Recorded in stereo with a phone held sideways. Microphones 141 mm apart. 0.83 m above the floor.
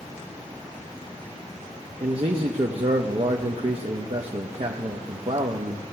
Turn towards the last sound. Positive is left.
turn(degrees=-45)  # may be behind; listen again after turning